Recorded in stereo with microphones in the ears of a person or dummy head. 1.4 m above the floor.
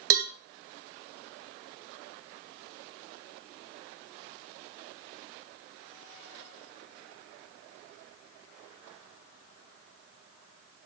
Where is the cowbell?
70° right (ahead or behind), 0.5 m.